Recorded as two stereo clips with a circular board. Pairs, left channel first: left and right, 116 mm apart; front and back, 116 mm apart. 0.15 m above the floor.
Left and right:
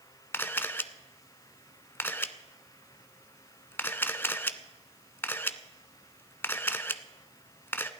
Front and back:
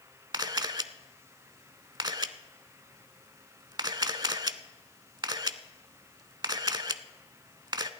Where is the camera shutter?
150° left, 0.6 m.